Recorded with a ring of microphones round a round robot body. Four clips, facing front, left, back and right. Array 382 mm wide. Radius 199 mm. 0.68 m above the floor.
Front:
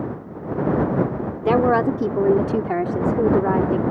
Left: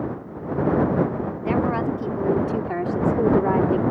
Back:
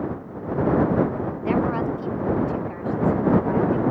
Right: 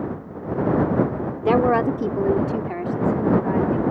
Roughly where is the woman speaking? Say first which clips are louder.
Right 5 dB, front 7 dB; ahead right.